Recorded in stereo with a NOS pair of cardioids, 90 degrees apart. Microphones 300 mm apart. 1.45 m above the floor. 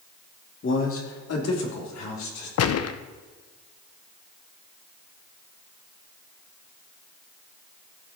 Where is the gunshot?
55° left, 0.8 m.